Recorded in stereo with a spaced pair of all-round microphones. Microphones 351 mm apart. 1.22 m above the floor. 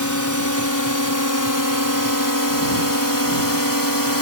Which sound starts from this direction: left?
A drone, at 0.0 s.